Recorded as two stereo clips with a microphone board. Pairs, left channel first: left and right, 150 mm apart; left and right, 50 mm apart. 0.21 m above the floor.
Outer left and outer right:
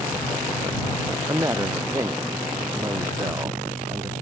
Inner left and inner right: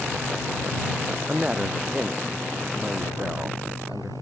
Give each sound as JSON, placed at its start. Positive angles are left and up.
{"t": 1.3, "sound": "a woman speaking", "side_deg": -20}